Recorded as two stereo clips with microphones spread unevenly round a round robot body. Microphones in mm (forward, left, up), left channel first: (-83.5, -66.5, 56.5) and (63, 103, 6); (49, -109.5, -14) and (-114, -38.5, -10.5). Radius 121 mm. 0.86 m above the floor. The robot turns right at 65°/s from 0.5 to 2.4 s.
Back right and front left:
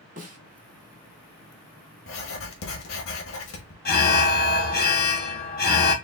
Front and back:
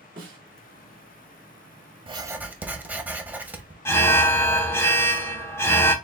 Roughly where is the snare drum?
Left.